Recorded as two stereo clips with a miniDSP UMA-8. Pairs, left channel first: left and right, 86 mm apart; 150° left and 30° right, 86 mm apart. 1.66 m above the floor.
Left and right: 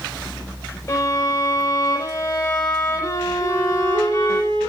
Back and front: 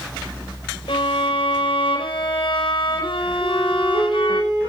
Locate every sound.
0.9 s a violin: 135° left, 4 m
3.4 s a flute: 70° right, 9 m